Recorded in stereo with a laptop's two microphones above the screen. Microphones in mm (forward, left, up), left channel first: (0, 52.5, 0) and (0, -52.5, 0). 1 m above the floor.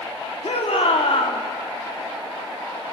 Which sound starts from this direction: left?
A shout, at 0.4 s.